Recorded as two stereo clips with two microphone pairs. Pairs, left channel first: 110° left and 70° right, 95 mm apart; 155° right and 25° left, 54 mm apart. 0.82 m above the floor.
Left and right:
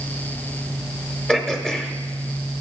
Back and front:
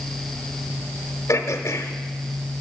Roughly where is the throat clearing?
Behind.